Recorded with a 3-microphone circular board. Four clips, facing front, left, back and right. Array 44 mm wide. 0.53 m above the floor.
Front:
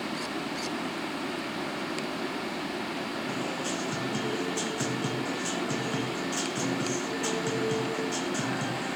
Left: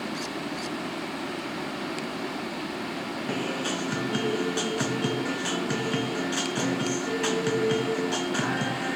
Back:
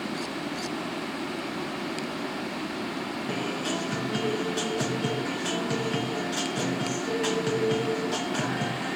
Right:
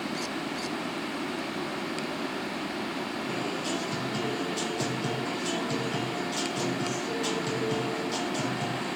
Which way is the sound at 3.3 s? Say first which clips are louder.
Left 4 dB, back 5 dB; 105° left.